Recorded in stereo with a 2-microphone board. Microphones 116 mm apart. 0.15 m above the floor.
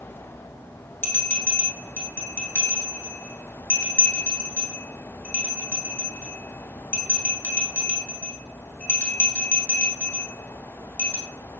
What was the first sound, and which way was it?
A bell, 15° left (ahead or behind).